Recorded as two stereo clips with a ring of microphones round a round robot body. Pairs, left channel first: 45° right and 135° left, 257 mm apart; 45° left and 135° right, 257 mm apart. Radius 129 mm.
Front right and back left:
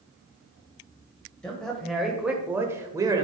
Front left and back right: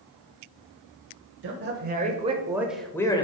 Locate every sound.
1.4 s a man speaking: 130° right, 1.1 m; by 3.2 s 85° left, 0.9 m